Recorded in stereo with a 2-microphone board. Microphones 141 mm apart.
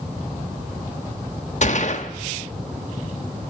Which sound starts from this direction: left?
A gunshot, at 1.6 s.